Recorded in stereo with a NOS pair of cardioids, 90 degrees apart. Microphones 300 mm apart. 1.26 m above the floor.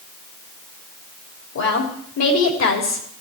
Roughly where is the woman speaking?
Ahead left.